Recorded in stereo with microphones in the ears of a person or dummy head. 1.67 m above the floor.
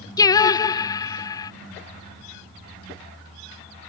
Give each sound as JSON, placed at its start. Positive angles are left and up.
{"t": 0.2, "sound": "singing", "side_deg": 25}